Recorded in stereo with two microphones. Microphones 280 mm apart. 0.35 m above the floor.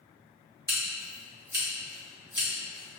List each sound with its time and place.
0.7 s scissors: 15° right (ahead or behind), 1.7 m